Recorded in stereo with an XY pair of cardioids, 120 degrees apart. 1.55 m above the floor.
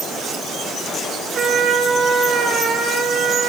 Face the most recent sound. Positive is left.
turn(degrees=-50)